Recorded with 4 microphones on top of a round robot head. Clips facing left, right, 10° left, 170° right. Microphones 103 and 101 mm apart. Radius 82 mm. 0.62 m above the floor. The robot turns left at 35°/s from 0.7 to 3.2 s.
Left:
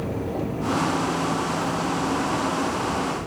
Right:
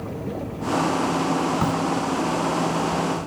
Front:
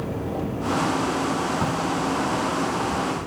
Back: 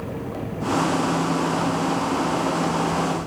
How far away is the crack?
About 0.6 m.